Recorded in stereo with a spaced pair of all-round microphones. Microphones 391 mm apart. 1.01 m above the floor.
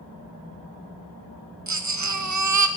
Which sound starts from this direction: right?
A baby crying, at 1.7 s.